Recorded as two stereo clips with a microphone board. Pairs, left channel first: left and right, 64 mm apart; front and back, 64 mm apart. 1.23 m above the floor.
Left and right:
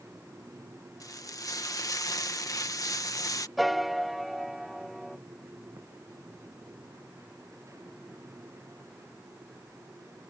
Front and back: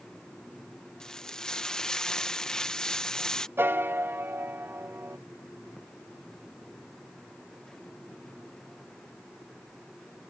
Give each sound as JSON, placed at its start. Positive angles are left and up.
{"t": 1.0, "sound": "frying", "azimuth_deg": 80}
{"t": 3.6, "sound": "a piano", "azimuth_deg": -175}